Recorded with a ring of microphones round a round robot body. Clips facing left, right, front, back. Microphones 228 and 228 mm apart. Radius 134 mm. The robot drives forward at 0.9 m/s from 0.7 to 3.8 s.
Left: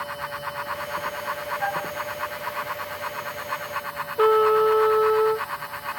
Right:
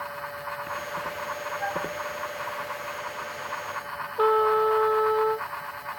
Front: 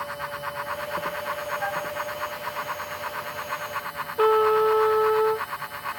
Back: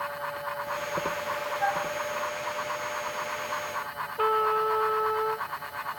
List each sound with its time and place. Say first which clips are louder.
1.6 s a flute: even, even; 55° left; by 1.9 s 60° left
4.2 s a trumpet: left 4 dB, front 9 dB; 35° left